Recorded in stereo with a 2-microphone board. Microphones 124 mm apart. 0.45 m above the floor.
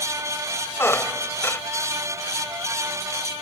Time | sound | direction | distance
0.8 | a squeak | 20° left (ahead or behind) | ?